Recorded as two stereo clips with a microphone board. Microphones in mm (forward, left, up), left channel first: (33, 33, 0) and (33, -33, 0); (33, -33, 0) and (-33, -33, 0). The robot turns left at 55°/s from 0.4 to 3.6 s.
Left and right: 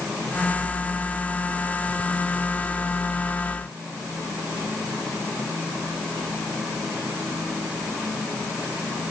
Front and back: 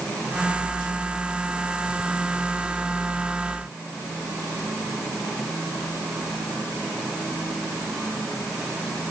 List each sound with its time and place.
Only background noise.